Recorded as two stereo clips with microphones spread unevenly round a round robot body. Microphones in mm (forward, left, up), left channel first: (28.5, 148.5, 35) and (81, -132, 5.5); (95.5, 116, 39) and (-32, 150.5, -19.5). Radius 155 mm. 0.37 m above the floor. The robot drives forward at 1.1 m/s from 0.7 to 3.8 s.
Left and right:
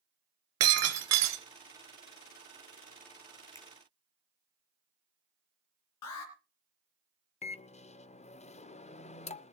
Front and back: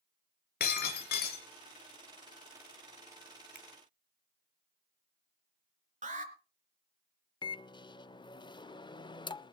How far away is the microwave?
About 0.6 m.